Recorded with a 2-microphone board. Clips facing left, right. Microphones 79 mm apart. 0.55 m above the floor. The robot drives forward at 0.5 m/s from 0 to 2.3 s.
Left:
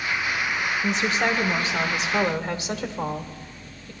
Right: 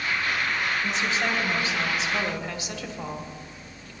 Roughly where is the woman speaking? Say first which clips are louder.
Left 3 dB; left.